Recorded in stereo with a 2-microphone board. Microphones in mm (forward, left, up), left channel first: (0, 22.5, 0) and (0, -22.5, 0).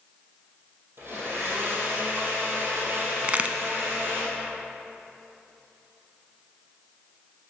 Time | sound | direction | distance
1.0 | a blender | 55° right (ahead or behind) | 3 m
3.2 | a crack | 35° right (ahead or behind) | 0.5 m